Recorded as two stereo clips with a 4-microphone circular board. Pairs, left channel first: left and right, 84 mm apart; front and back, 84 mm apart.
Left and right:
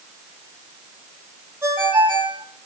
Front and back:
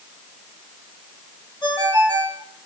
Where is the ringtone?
25° right, 5.5 m.